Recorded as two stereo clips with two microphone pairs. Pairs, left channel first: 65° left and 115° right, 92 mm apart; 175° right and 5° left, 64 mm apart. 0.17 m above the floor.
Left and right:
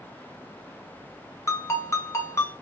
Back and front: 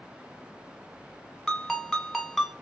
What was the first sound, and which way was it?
A ringtone, 95° left.